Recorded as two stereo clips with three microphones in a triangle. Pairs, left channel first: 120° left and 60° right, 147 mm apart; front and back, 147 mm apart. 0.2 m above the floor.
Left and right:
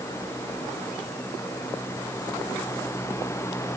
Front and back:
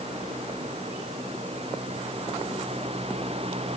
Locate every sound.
Only background noise.